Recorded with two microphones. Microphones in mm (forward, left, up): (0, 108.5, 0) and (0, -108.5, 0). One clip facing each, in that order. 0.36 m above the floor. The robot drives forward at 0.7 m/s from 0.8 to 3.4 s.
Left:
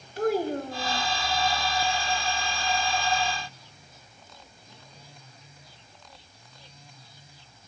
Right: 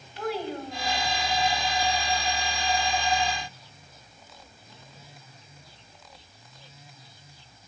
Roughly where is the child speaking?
Left.